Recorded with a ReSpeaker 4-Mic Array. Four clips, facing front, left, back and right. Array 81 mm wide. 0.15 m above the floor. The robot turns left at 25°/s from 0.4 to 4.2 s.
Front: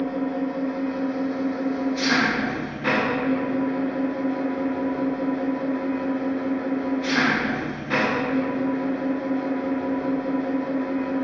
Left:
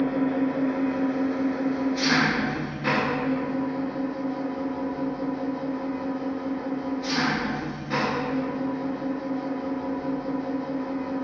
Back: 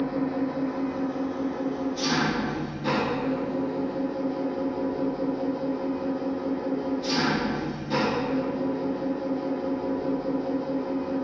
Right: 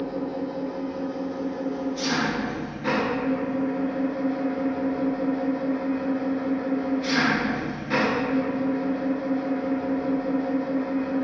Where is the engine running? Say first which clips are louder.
Left 5 dB, front 1 dB; 80° left, 0.8 m; by 11.2 s 15° right, 0.8 m.